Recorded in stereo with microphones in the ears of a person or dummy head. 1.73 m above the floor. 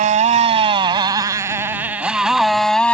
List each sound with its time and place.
0.0 s a motorcycle: 35° right (ahead or behind); by 3.0 s 5° left (ahead or behind)